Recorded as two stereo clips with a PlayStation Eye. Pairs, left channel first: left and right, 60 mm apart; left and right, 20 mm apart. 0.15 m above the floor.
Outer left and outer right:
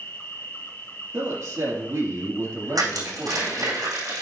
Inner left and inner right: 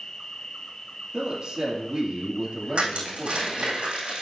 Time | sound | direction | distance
0.0 | an insect | 40° left (ahead or behind) | 1.1 m
1.1 | a woman speaking | 60° right (ahead or behind) | 3 m
2.8 | crushing | 80° right | 4 m